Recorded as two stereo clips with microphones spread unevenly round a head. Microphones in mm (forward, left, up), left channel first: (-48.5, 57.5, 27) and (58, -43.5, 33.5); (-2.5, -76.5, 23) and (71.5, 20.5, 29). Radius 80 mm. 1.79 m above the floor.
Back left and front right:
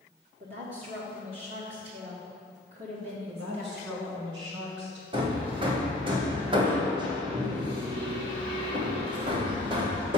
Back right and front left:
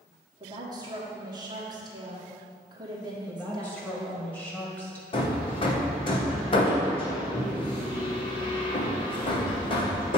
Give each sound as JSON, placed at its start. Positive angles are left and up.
{"t": 0.4, "sound": "a woman speaking", "azimuth_deg": 0, "distance_m": 1.2}
{"t": 3.3, "sound": "a woman speaking", "azimuth_deg": -50, "distance_m": 2.0}
{"t": 5.1, "sound": "hammering", "azimuth_deg": -95, "distance_m": 1.0}